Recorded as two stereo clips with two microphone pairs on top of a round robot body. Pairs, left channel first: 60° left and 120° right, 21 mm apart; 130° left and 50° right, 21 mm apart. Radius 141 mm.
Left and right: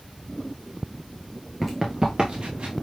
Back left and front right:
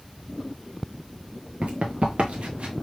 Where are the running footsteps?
30° right, 0.5 m; by 2.7 s 80° right, 1.0 m.